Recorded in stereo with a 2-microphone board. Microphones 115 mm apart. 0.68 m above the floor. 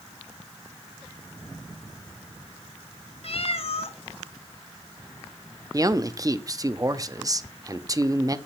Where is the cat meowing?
60° left (ahead or behind), 1.0 m.